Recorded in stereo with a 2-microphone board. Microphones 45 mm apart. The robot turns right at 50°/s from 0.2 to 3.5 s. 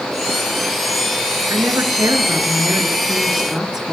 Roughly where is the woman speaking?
Right.